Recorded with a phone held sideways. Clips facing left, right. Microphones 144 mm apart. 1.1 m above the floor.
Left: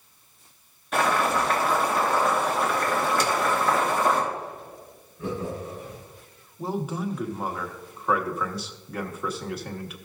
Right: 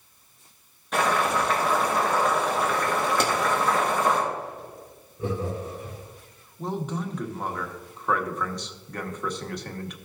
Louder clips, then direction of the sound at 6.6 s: Left 1 dB; 5° left (ahead or behind).